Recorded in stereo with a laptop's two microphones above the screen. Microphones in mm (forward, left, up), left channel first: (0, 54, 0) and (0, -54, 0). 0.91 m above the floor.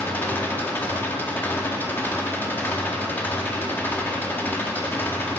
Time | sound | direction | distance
0.0 | an engine running | 20° left (ahead or behind) | 0.7 m